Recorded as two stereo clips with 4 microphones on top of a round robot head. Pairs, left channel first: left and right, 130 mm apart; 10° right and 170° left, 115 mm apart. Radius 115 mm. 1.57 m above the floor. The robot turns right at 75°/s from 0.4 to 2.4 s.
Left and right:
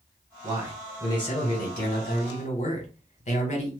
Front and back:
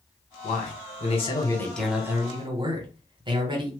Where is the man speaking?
25° right, 1.3 m; by 3.7 s 120° left, 1.3 m.